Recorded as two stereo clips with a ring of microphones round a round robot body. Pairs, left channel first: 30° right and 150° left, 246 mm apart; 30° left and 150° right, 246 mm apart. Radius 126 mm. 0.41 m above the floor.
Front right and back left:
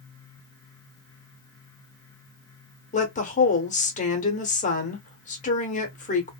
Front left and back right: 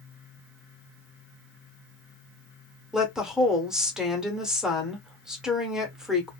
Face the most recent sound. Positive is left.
turn(degrees=-65)